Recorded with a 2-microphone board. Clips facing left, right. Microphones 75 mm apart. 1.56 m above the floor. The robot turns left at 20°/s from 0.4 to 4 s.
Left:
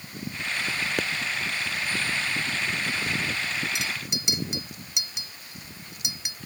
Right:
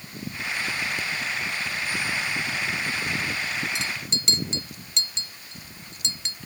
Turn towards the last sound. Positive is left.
turn(degrees=15)  # may be behind; listen again after turning